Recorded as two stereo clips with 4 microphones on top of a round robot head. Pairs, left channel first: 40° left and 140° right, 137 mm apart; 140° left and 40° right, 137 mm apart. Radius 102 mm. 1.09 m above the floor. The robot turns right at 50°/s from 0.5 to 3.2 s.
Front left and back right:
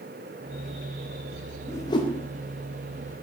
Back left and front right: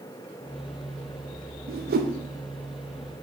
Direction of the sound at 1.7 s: 35° right.